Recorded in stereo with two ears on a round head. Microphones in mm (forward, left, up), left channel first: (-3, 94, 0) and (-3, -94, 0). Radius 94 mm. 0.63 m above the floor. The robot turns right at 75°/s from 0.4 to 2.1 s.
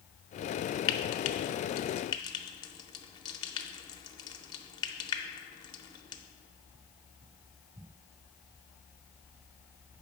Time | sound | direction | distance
0.9 | frying | 65° left (ahead or behind) | 0.6 m